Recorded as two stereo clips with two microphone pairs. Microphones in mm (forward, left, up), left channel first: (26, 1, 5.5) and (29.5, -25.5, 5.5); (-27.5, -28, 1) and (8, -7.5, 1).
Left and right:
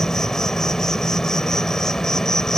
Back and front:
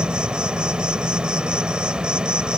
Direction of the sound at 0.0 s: 60° left.